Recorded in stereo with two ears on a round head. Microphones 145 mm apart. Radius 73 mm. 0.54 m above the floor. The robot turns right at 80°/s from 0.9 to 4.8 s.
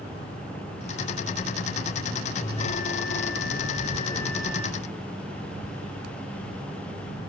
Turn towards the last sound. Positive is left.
turn(degrees=-150)